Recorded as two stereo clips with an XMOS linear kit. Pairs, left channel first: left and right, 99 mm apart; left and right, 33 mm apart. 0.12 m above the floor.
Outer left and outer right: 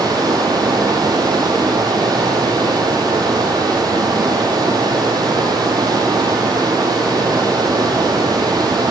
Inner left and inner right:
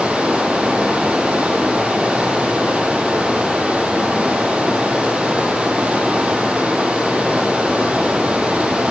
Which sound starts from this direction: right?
Running water, at 0.0 s.